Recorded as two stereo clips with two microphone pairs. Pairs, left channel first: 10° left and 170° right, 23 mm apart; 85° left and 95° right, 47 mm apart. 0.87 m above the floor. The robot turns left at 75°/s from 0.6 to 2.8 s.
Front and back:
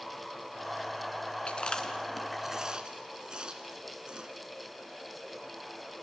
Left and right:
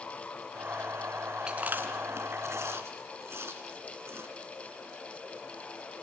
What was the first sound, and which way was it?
Chewing, 25° right.